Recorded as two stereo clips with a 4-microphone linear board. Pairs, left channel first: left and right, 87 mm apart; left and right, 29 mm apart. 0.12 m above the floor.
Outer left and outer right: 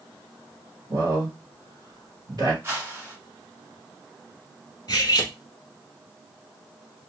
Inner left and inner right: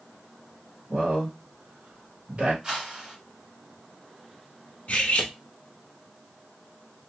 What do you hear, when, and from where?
0.9 s a man speaking: 45° right (ahead or behind), 2 m
2.6 s a whoosh: 25° right (ahead or behind), 1.3 m
4.9 s cutlery clinking: 45° left (ahead or behind), 1.1 m